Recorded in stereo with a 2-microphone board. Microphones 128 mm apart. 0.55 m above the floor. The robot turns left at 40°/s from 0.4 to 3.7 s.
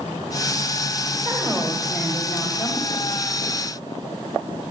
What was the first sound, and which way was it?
A woman speaking, 175° left.